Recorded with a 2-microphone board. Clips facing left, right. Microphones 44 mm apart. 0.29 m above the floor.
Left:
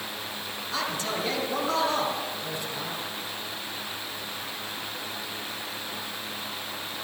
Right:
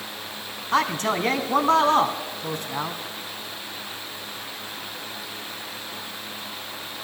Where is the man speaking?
65° right (ahead or behind), 2 m.